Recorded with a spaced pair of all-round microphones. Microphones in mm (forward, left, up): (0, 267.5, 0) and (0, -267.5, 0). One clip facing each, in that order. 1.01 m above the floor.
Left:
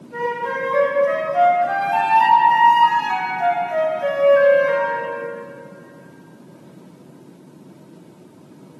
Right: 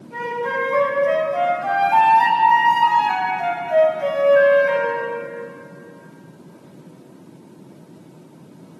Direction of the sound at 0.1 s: 70° right (ahead or behind).